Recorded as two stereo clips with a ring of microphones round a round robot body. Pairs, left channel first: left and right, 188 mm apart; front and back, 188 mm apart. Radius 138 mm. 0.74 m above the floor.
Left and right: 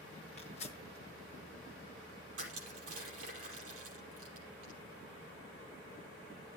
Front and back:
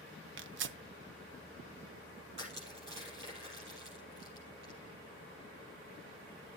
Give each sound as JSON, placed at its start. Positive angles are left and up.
{"t": 0.4, "sound": "tearing paper", "azimuth_deg": 160, "distance_m": 0.6}
{"t": 2.4, "sound": "crushing", "azimuth_deg": -125, "distance_m": 5.0}